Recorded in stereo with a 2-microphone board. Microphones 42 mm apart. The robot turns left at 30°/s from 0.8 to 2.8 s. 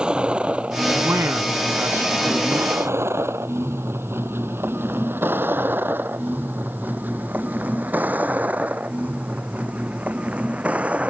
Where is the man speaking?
85° right; by 2.7 s 35° right (ahead or behind).